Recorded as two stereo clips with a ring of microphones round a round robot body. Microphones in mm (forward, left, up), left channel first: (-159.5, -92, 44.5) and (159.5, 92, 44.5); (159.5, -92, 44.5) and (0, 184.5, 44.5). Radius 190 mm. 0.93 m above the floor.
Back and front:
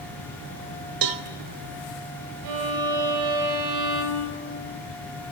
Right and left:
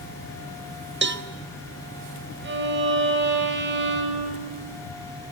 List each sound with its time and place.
1.0 s a cowbell: 65° left, 1.4 m
2.4 s a violin: 65° left, 5 m